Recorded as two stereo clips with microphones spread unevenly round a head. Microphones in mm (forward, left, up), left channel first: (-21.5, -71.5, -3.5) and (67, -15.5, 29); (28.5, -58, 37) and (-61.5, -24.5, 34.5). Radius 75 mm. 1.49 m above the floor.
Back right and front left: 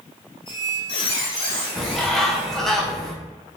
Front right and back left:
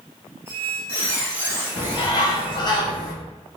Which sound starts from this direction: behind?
A squeak, at 0.5 s.